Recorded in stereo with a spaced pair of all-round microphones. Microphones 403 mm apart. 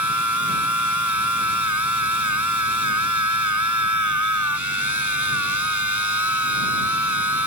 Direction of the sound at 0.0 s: 50° right (ahead or behind).